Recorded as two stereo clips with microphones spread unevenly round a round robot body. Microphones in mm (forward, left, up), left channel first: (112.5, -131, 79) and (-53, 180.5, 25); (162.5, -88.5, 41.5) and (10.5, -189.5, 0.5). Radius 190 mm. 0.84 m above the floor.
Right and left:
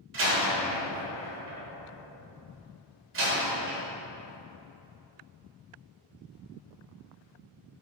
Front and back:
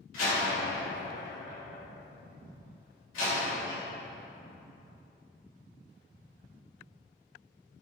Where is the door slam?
65° left, 3 m.